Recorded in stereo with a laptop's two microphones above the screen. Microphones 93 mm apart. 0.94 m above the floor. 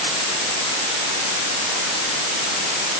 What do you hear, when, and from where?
Only background noise.